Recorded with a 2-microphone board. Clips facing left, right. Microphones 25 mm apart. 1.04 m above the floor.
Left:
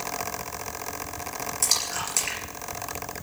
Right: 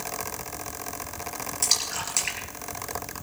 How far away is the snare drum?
I don't hear a snare drum.